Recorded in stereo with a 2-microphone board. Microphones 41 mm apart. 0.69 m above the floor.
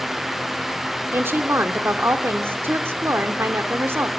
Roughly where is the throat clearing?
No throat clearing in this recording.